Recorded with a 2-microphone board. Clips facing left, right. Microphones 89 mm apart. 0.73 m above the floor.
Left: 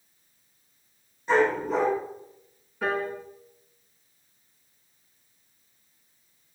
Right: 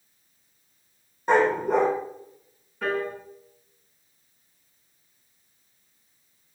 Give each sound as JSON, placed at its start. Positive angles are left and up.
{"t": 1.3, "sound": "a dog barking", "side_deg": -55, "distance_m": 7.5}
{"t": 2.8, "sound": "a piano", "side_deg": 5, "distance_m": 4.5}